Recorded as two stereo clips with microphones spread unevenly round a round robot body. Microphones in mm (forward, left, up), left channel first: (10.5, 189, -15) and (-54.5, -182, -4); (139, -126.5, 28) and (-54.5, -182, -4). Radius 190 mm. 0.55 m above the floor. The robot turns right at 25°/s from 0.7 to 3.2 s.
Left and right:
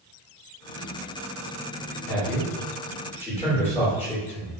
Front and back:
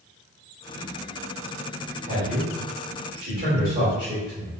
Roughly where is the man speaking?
Behind left.